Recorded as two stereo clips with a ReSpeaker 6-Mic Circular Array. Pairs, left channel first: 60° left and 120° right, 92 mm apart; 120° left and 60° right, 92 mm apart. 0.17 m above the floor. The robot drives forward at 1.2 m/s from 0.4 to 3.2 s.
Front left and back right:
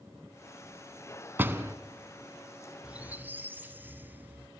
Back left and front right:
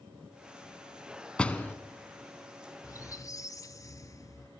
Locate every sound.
1.4 s a door slam: 170° right, 0.8 m; by 1.8 s 175° right, 1.1 m
2.8 s a squeak: 165° left, 0.5 m; by 4.5 s 170° left, 0.9 m